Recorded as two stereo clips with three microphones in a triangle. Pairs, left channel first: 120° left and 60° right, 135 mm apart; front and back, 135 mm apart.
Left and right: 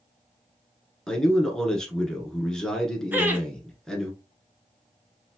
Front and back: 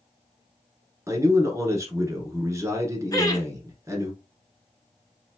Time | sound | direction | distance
1.1 | a man speaking | 160° right | 1.3 m
3.1 | laughter | 5° right | 1.3 m